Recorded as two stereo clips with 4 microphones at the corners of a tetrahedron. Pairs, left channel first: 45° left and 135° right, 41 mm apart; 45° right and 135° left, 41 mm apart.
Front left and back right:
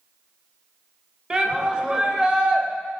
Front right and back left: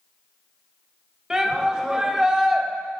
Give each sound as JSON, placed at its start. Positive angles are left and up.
{"t": 1.3, "sound": "a shout", "azimuth_deg": -170, "distance_m": 1.4}